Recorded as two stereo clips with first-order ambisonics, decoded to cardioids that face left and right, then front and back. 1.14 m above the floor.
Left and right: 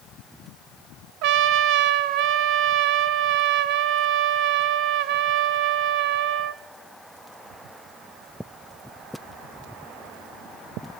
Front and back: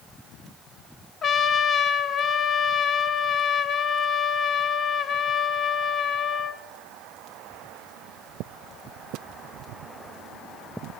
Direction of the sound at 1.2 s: 65° right.